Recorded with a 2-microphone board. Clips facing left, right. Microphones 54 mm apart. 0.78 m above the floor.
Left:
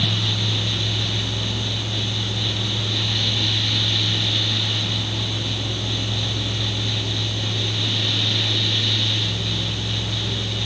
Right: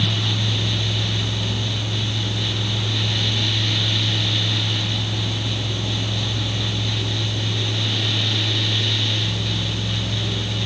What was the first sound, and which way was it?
Only background noise.